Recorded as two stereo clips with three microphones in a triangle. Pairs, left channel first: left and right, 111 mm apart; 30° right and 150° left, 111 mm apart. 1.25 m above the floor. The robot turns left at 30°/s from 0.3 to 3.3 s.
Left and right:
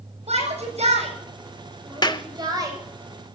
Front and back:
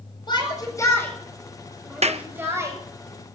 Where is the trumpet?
I don't hear a trumpet.